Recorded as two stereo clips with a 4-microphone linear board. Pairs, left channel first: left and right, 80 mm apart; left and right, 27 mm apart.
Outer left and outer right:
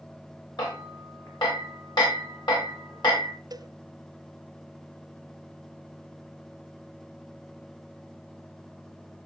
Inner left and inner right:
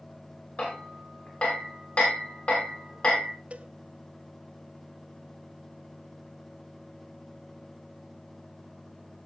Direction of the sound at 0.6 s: 65° left (ahead or behind).